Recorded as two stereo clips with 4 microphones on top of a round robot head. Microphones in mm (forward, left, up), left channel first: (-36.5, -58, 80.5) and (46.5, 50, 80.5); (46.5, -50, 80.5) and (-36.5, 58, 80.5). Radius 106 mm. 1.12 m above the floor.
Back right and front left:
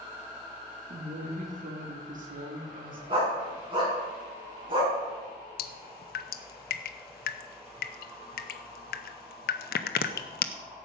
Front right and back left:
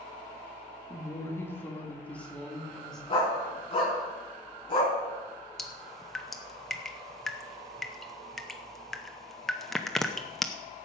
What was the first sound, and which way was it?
A woman speaking, 15° left.